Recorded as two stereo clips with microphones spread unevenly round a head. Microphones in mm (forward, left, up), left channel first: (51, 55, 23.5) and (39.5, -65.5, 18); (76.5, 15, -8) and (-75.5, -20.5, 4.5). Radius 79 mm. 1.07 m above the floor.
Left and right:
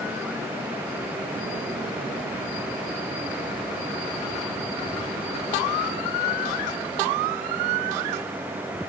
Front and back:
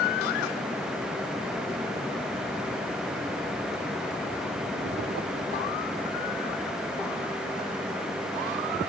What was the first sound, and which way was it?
Only background noise.